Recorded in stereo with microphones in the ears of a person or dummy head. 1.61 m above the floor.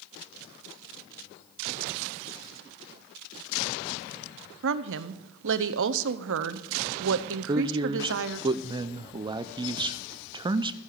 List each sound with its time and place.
4.6 s a woman speaking: 75° right (ahead or behind), 0.8 m
7.5 s a man speaking: 30° right (ahead or behind), 0.6 m